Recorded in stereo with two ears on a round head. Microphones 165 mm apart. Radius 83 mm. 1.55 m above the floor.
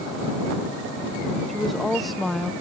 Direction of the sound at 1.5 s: Centre (ahead or behind).